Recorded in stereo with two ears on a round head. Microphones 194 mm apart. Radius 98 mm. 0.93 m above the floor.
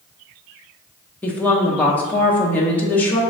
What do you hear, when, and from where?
1.2 s a woman speaking: 10° left (ahead or behind), 0.7 m